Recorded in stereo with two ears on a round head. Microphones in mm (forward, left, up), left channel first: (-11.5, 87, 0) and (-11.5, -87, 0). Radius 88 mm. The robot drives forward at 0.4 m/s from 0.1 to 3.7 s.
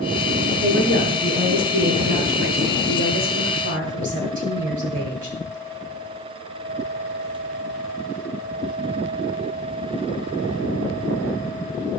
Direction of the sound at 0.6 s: 50° right (ahead or behind).